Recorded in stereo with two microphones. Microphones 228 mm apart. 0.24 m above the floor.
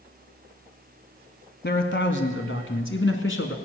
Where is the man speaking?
45° left (ahead or behind), 1.7 m; by 3.5 s 60° left (ahead or behind), 2.5 m.